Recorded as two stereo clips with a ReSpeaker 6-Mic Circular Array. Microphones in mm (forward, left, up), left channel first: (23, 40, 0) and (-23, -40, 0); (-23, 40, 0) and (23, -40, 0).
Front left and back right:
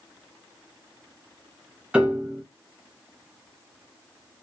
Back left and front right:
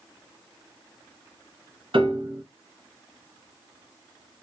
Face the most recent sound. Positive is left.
turn(degrees=-40)